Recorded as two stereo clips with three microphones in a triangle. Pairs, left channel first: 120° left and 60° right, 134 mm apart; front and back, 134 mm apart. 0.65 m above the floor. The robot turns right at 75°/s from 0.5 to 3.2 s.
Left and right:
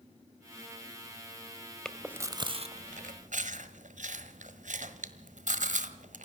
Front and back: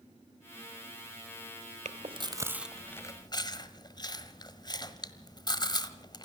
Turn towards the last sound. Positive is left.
turn(degrees=-55)